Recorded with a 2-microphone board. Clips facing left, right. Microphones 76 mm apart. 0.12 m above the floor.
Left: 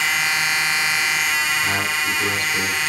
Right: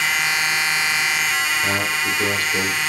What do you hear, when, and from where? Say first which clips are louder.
1.6 s a man speaking: even; 30° right (ahead or behind), 4.5 m